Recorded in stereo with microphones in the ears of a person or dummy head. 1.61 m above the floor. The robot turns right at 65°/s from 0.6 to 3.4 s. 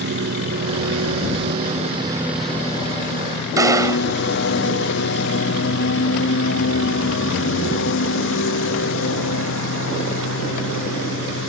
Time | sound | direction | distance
0.0 | a lawn mower | 55° right (ahead or behind) | ?
3.6 | a gunshot | 10° right (ahead or behind) | ?